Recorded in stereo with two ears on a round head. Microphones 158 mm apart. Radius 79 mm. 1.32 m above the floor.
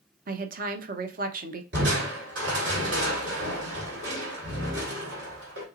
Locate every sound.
0.3 s a woman speaking: 50° right (ahead or behind), 0.8 m
1.7 s crushing: 70° right (ahead or behind), 3 m